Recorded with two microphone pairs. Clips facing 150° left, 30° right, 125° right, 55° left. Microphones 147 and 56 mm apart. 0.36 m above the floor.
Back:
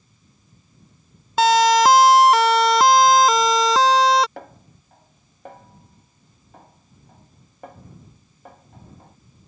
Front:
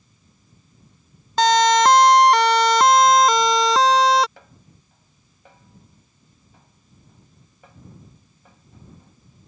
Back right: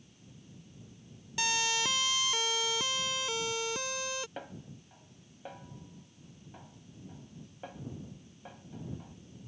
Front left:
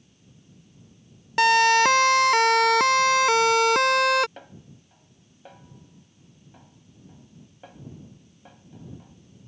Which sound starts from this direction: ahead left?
A siren, at 1.4 s.